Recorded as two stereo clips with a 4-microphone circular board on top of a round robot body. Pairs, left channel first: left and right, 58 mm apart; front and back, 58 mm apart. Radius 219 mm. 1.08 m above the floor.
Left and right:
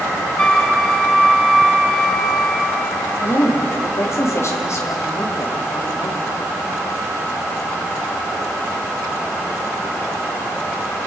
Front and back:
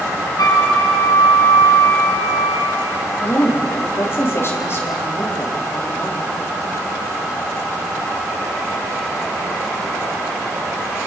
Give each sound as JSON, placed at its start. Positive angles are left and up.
{"t": 0.4, "sound": "a flute", "azimuth_deg": 15, "distance_m": 1.8}
{"t": 3.2, "sound": "a woman speaking", "azimuth_deg": 50, "distance_m": 2.5}